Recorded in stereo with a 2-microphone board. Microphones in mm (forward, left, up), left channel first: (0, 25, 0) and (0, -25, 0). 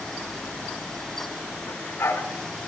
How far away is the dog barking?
About 2.5 m.